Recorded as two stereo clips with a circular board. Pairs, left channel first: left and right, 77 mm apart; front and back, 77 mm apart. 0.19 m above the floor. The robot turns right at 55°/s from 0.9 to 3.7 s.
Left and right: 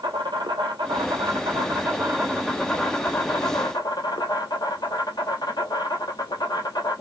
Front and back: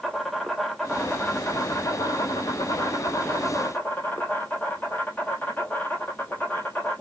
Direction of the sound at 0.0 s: 85° right.